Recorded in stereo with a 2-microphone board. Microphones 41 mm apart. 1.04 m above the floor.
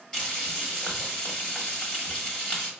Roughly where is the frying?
Centre.